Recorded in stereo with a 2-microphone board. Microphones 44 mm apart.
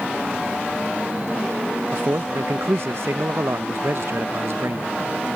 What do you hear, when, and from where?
1.9 s a man speaking: 70° right (ahead or behind)